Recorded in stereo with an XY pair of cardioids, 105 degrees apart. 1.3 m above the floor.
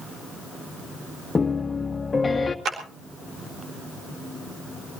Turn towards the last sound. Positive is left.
turn(degrees=-55)